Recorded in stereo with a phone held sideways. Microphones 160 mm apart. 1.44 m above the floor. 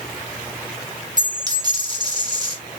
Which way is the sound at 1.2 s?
25° right (ahead or behind).